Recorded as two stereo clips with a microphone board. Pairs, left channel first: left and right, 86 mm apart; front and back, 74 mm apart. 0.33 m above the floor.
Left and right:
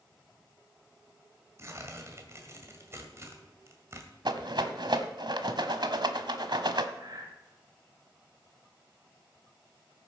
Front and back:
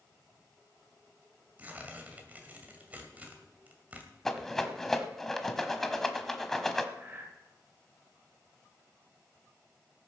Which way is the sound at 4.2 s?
85° right.